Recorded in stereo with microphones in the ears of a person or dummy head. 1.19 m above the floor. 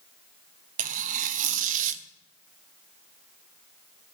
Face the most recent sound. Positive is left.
turn(degrees=-45)  # may be behind; listen again after turning